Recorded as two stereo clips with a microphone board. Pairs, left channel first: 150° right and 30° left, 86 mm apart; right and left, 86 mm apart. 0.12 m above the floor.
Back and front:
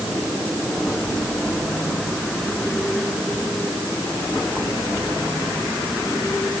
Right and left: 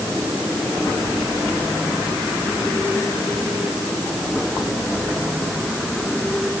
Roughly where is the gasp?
No gasp in this recording.